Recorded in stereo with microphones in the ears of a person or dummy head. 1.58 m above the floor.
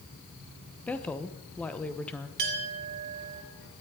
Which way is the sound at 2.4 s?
55° right (ahead or behind).